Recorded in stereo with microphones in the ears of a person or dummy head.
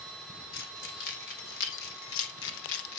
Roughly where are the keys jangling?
Left.